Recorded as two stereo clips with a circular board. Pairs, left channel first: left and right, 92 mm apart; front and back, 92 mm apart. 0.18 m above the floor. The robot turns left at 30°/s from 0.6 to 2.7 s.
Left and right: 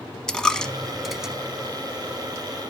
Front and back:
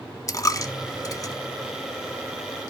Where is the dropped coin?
10° left, 0.8 m; by 1.3 s 10° right, 0.8 m.